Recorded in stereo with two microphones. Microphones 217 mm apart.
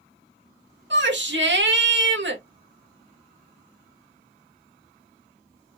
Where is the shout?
60° right (ahead or behind), 1.7 m.